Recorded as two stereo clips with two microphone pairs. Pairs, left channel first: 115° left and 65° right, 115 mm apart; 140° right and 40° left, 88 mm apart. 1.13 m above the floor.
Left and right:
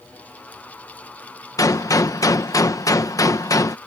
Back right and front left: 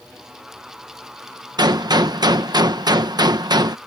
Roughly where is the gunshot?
Ahead left.